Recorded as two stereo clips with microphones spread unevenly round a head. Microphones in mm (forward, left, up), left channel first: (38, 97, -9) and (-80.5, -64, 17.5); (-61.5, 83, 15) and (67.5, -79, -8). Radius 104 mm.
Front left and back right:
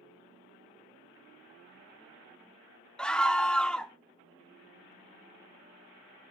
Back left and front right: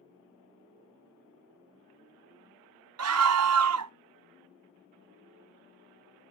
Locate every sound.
3.0 s a scream: 35° right, 0.6 m